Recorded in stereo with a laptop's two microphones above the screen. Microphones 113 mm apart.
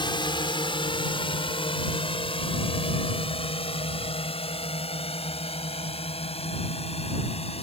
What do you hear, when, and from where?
0.0 s a drone: 45° left (ahead or behind); by 7.6 s 65° left (ahead or behind)